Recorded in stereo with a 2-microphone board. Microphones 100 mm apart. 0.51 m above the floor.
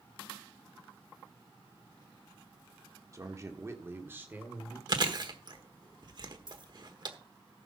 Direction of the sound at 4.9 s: 50° right (ahead or behind).